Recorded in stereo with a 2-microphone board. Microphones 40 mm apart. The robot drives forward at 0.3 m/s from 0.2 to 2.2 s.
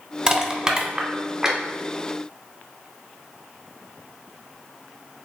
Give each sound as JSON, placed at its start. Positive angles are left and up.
{"t": 0.3, "sound": "crushing", "side_deg": -25, "distance_m": 0.7}